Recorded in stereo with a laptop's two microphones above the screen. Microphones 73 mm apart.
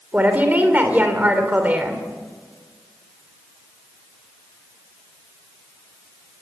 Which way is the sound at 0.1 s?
25° right (ahead or behind).